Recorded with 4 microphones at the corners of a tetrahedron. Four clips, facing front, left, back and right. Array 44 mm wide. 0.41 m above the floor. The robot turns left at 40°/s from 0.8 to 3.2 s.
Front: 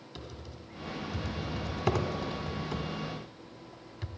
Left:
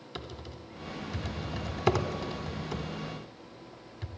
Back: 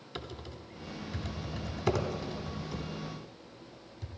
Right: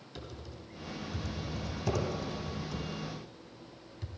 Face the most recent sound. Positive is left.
turn(degrees=30)